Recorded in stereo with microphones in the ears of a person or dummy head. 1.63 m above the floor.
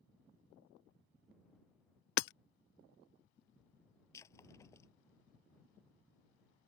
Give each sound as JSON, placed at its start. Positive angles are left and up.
{"t": 2.2, "sound": "hammering", "side_deg": 70}
{"t": 4.1, "sound": "breaking glass", "side_deg": 25}